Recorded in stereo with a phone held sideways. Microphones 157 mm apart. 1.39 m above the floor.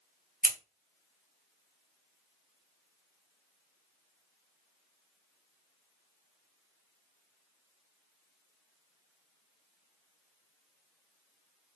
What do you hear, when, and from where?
0.4 s scissors: 75° right (ahead or behind), 0.7 m